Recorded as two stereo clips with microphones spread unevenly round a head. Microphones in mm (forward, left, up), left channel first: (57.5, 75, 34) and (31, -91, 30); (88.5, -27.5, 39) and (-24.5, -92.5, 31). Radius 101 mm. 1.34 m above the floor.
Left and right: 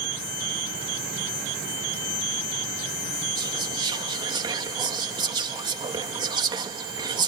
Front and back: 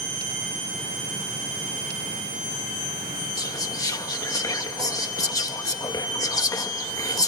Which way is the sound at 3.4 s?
35° right.